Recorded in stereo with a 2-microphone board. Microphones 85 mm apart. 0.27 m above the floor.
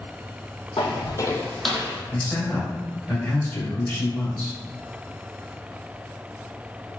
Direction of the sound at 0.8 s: 75° left (ahead or behind).